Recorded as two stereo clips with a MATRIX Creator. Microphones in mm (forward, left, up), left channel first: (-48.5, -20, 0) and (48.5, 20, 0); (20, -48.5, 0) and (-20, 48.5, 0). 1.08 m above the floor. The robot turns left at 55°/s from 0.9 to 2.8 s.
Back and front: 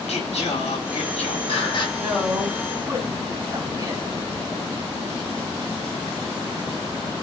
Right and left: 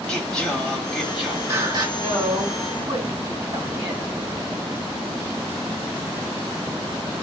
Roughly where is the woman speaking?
Behind left.